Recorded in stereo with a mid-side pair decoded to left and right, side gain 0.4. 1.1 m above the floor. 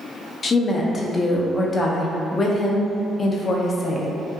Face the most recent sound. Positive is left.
turn(degrees=45)